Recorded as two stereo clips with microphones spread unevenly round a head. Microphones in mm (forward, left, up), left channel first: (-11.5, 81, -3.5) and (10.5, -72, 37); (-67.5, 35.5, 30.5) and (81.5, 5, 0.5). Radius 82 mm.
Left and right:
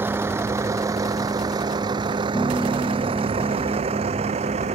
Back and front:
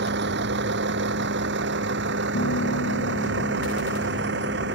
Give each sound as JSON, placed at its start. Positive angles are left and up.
{"t": 0.0, "sound": "a vehicle", "azimuth_deg": -5}
{"t": 2.3, "sound": "a piano", "azimuth_deg": -170}